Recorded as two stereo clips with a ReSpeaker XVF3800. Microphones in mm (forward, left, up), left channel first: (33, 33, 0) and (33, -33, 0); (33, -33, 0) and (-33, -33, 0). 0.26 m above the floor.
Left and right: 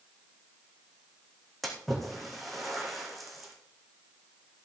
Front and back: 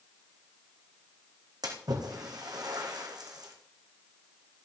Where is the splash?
Straight behind, 3 m.